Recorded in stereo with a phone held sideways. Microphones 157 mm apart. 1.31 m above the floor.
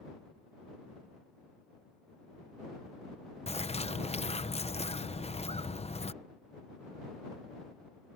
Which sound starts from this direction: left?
A bird, at 3.5 s.